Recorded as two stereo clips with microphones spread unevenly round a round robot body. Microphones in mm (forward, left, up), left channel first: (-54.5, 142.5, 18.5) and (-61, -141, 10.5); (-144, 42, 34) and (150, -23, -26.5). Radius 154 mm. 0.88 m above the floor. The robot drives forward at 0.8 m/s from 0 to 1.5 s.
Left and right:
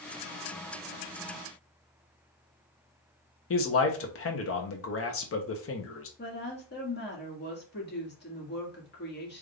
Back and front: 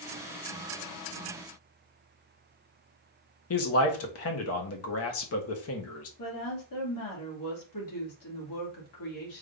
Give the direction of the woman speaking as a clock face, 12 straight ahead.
7 o'clock.